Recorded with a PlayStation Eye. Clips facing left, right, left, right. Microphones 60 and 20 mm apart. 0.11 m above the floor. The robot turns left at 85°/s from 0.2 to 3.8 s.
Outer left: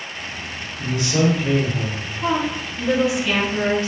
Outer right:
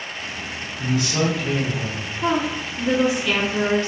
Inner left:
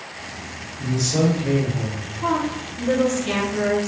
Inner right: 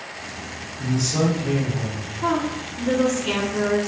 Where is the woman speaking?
20° right (ahead or behind), 1.3 m; by 3.9 s 25° left (ahead or behind), 1.3 m.